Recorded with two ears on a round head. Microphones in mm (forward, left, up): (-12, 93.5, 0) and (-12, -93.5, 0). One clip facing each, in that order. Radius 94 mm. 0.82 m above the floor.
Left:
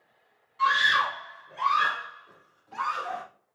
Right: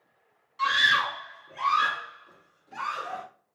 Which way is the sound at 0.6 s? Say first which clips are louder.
Left 2 dB; 55° right (ahead or behind).